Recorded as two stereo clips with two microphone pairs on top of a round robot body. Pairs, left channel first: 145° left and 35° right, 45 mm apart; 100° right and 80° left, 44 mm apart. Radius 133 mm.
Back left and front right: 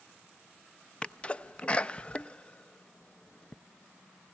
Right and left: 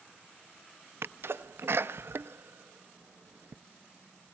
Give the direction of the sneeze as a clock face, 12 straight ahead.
9 o'clock.